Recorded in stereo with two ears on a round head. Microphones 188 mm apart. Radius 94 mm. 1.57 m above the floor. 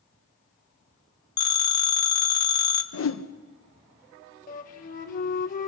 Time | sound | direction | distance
1.4 | a phone ringing | 20° left (ahead or behind) | 1.4 m
2.9 | a whoosh | 70° left (ahead or behind) | 1.2 m
4.5 | a flute | 40° left (ahead or behind) | 1.4 m